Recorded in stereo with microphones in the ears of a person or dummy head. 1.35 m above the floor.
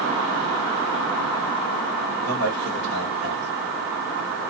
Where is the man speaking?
55° right (ahead or behind), 1.6 m.